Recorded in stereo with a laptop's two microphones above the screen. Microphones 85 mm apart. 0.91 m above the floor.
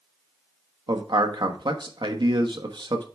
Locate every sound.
0.9 s a man speaking: 65° right (ahead or behind), 1.1 m